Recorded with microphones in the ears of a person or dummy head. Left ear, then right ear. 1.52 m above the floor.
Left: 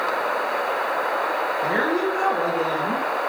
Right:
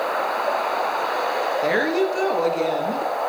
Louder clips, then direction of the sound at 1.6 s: Right 2 dB; 55° right (ahead or behind).